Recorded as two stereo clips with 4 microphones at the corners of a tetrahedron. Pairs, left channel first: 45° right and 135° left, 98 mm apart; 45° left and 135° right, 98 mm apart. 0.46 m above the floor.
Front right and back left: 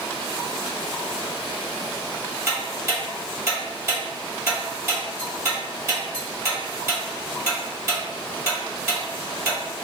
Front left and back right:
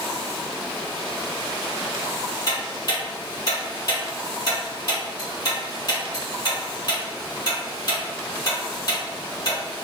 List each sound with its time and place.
2.5 s ticking: 80° left, 1.8 m